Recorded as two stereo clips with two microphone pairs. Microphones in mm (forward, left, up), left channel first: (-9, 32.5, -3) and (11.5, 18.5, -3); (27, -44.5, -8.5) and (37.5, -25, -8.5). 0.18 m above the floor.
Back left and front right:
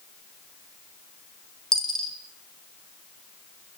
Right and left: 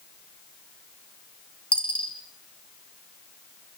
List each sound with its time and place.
1.7 s a dropped coin: 145° right, 2.5 m